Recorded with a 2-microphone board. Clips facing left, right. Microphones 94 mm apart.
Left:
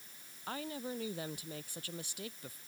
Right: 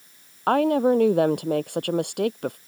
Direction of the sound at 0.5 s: 65° right (ahead or behind).